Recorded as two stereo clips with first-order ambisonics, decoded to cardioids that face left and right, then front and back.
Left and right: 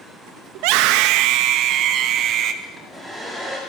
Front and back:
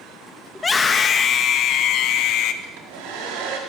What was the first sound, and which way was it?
A scream, 80° right.